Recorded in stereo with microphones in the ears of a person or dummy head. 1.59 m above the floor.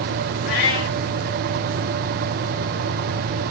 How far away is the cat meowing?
About 1.2 m.